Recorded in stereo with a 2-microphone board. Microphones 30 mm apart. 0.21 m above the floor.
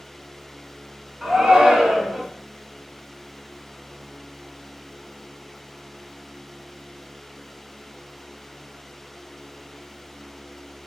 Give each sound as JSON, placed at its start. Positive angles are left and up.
{"t": 1.2, "sound": "a shout", "side_deg": -25, "distance_m": 2.5}